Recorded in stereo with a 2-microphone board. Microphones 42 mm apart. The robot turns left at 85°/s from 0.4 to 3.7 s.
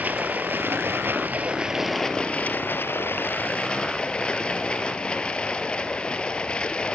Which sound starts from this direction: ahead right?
Running water, at 0.0 s.